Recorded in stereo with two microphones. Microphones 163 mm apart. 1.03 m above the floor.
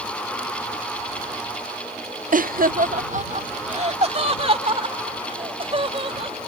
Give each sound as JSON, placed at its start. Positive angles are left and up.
{"t": 2.3, "sound": "laughter", "side_deg": -55}